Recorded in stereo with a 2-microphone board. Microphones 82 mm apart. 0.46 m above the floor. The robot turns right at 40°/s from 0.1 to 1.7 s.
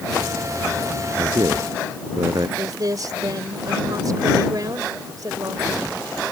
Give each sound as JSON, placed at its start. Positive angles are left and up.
{"t": 1.2, "sound": "a man speaking", "side_deg": -70}
{"t": 2.6, "sound": "a woman speaking", "side_deg": -50}